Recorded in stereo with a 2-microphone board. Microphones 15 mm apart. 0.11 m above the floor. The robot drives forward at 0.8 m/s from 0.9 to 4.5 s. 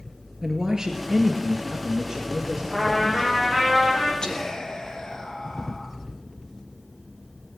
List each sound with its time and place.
0.4 s a man speaking: 40° right (ahead or behind), 1.5 m; by 3.4 s 20° right (ahead or behind), 3 m
2.7 s a trumpet: 20° left (ahead or behind), 9 m
4.2 s whispering: 60° left (ahead or behind), 2.5 m